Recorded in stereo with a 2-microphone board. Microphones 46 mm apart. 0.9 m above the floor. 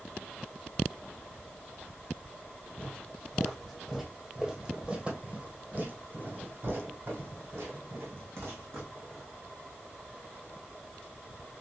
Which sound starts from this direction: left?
Footsteps, at 2.8 s.